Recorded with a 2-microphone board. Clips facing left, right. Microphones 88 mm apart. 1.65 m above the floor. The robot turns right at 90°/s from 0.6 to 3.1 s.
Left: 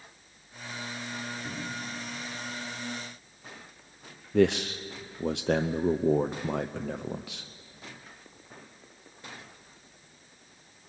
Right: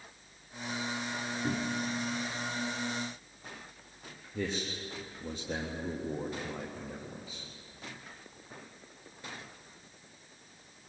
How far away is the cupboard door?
About 2 m.